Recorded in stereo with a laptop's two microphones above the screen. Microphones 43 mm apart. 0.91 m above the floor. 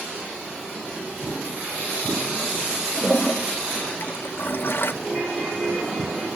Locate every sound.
3.0 s a toilet flushing: 60° left (ahead or behind), 0.5 m
5.0 s a ringtone: 35° right (ahead or behind), 9 m